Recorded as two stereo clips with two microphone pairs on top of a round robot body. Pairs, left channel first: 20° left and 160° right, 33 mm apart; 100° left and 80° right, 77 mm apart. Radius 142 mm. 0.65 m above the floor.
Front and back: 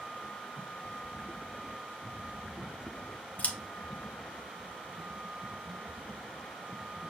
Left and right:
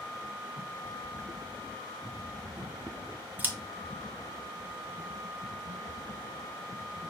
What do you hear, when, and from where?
3.4 s scissors: 20° right, 0.9 m